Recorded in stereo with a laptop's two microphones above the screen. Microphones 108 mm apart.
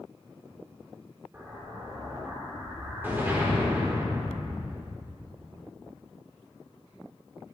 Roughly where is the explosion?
Right.